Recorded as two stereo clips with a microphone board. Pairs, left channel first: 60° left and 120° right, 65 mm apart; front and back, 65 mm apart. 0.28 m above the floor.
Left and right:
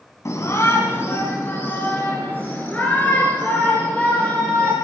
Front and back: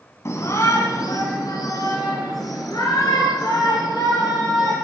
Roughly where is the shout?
Ahead left.